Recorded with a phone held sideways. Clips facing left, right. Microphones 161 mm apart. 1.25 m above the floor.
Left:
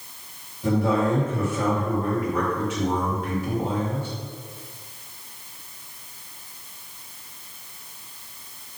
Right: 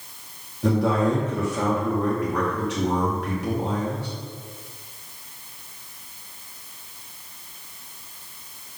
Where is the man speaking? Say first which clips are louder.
Right 1 dB; 80° right, 2 m.